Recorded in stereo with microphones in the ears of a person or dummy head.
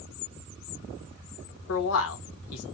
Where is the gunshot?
I don't hear a gunshot.